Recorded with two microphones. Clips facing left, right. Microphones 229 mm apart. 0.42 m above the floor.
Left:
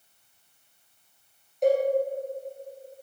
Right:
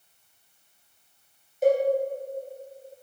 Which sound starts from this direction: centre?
A cowbell, at 1.6 s.